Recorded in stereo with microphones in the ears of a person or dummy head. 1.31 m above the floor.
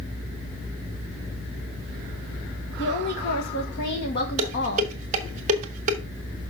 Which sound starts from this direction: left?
A woman speaking, at 2.8 s.